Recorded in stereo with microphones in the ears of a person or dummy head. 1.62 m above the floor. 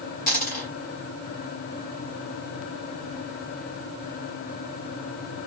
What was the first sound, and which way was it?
A dropped coin, 45° left (ahead or behind).